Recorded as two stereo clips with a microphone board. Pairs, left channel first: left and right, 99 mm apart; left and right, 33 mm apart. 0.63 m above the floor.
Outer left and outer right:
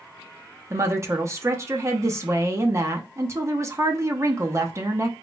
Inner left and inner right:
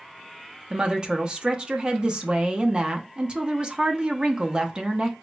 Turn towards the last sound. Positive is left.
turn(degrees=-30)  # may be behind; listen again after turning